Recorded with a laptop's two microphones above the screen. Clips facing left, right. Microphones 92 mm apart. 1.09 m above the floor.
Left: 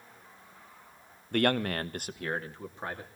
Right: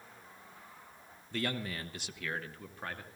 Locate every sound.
1.3 s a man speaking: 60° left (ahead or behind), 0.9 m; by 3.1 s 20° left (ahead or behind), 2 m